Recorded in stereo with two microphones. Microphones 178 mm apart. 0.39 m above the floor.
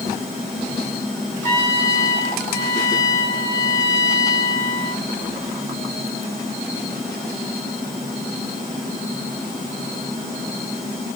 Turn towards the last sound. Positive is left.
turn(degrees=15)  # may be behind; listen again after turning